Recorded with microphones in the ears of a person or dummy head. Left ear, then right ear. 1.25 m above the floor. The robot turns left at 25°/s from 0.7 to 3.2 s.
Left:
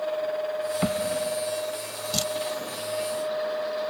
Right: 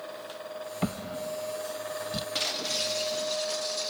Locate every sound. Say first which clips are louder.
0.8 s a drawer: left 5 dB; 10° left (ahead or behind); by 2.2 s 45° left (ahead or behind)
2.4 s breaking glass: right 1 dB; 45° right (ahead or behind); by 3.9 s 70° right (ahead or behind)